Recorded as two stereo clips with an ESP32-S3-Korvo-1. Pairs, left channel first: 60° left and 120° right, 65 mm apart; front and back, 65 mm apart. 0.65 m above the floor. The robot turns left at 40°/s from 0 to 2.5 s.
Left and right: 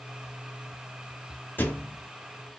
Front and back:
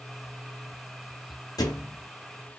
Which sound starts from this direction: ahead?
A thud, at 1.6 s.